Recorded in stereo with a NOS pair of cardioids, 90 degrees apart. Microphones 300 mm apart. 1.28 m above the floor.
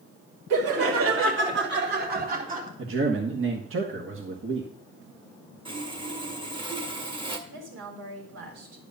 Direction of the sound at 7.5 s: 60° right.